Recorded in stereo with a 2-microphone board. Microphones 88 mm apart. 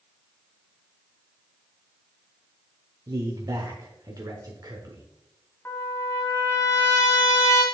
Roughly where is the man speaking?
Right.